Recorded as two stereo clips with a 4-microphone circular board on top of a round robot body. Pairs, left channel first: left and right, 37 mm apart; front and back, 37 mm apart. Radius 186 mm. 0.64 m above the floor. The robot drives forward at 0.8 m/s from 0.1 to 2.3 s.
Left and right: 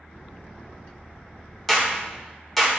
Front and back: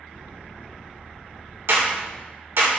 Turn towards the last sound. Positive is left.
turn(degrees=170)